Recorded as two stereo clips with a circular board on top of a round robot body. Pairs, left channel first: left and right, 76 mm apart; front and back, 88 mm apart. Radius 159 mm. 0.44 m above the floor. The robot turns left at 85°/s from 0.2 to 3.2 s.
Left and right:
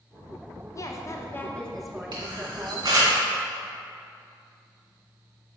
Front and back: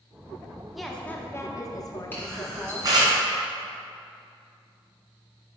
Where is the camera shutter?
70° right, 2 m; by 3.1 s 155° right, 2 m.